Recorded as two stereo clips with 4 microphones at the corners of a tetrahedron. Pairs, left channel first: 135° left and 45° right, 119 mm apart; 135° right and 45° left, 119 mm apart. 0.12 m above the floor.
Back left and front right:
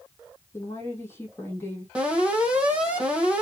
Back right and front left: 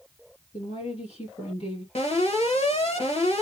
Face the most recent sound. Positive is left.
turn(degrees=-125)